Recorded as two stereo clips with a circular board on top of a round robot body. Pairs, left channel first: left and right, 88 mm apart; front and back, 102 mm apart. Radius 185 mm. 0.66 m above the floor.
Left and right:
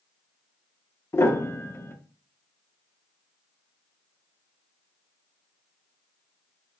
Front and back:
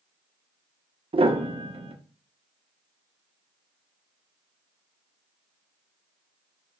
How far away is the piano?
About 1.3 m.